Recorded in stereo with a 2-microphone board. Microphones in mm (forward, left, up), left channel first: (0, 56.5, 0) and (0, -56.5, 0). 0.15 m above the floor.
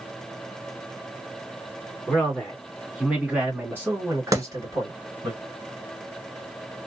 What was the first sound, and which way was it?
A man speaking, 15° left (ahead or behind).